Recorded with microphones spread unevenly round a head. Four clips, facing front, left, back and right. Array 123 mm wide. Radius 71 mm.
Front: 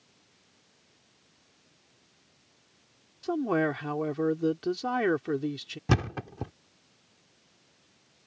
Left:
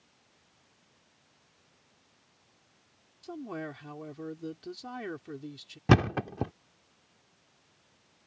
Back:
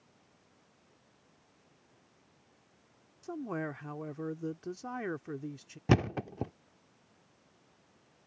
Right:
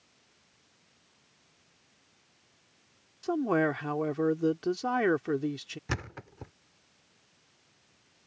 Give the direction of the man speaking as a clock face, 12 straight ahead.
2 o'clock.